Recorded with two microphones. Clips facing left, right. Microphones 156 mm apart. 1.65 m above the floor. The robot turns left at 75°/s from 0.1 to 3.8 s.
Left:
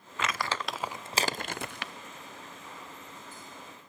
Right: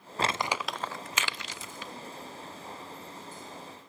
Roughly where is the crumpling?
Right.